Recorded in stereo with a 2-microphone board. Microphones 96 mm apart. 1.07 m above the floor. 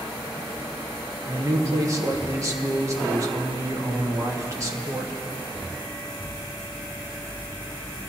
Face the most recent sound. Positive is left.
turn(degrees=-35)  # may be behind; listen again after turning